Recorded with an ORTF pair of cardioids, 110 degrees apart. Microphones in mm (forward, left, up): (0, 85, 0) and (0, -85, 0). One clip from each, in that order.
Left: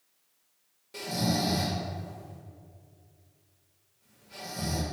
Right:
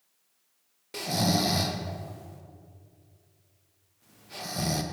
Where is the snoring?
45° right, 0.9 m.